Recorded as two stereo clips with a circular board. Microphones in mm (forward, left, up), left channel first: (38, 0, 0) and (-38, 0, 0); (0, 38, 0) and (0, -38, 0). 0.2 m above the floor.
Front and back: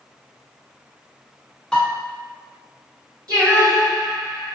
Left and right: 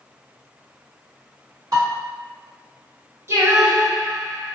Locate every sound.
1.7 s dishes clattering: 80° right, 1.6 m
3.3 s singing: 150° right, 1.6 m